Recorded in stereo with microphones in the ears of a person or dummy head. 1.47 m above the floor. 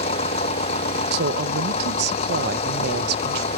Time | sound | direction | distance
0.0 | an engine running | 40° left (ahead or behind) | ?
1.1 | a woman speaking | 55° right (ahead or behind) | ?